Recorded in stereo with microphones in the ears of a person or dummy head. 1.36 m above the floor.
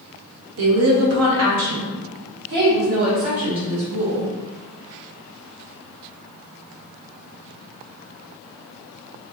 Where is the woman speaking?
75° right (ahead or behind), 1.2 m; by 4.3 s 40° right (ahead or behind), 2.5 m.